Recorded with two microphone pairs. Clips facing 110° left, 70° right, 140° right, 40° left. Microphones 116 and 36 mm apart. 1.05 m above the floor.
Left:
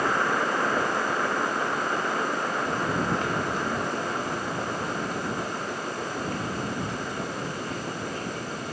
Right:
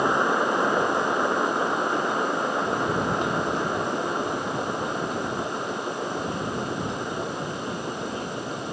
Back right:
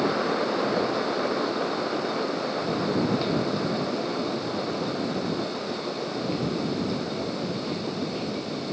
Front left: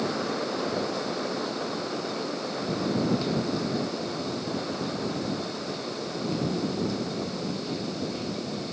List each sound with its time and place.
Only background noise.